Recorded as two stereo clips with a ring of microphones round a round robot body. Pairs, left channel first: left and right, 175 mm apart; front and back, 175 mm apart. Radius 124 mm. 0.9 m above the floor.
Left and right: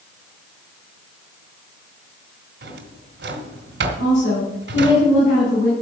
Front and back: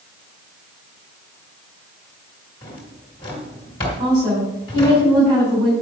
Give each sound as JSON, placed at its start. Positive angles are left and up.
{"t": 2.6, "sound": "a drawer", "azimuth_deg": -70, "distance_m": 2.0}
{"t": 4.0, "sound": "a woman speaking", "azimuth_deg": 110, "distance_m": 6.5}